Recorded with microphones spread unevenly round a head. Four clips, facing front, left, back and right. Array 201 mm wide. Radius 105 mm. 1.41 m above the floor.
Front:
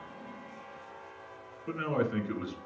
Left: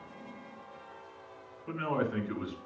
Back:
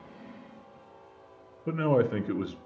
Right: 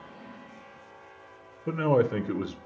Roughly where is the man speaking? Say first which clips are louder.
Right 8 dB, back 6 dB; behind right.